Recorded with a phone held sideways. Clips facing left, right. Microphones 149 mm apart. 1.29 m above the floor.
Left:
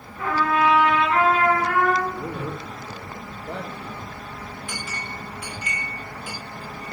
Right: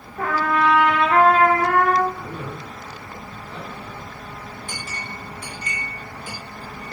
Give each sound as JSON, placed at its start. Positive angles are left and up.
{"t": 0.2, "sound": "a trumpet", "side_deg": -70, "distance_m": 3.0}
{"t": 2.1, "sound": "a man speaking", "side_deg": 70, "distance_m": 3.0}
{"t": 4.7, "sound": "a clink", "side_deg": -40, "distance_m": 5.5}